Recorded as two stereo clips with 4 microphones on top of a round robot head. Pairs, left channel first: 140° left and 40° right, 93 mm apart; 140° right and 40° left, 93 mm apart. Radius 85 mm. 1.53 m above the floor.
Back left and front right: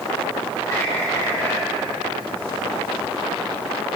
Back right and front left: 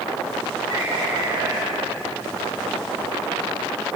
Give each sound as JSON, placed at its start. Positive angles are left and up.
{"t": 0.7, "sound": "a bird", "azimuth_deg": 80, "distance_m": 9.5}